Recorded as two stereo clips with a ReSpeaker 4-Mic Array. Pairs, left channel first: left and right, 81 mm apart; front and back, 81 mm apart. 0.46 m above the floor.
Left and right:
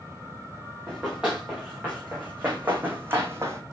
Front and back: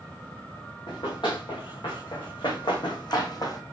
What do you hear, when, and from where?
0.9 s running footsteps: 10° right, 3 m; by 3.6 s 35° right, 1.2 m